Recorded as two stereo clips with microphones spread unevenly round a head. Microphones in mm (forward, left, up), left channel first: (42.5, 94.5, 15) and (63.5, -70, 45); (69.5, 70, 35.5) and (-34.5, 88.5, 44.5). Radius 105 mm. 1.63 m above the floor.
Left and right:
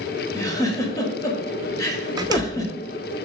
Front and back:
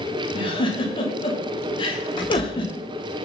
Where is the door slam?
50° right, 0.8 m.